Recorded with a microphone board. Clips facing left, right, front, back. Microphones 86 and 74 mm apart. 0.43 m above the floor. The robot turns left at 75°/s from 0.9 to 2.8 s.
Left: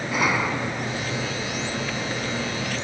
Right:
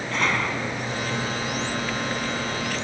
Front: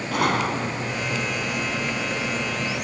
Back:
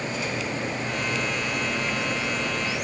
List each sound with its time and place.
0.1 s a gunshot: 10° left